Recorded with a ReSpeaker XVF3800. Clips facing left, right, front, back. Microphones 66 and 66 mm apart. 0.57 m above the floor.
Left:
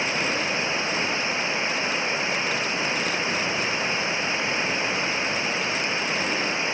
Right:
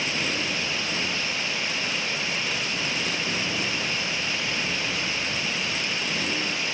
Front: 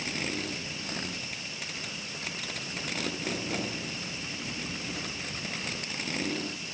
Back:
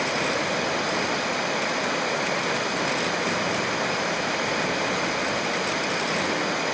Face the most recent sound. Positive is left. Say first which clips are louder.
# left 3 dB, back 10 dB
turn(degrees=155)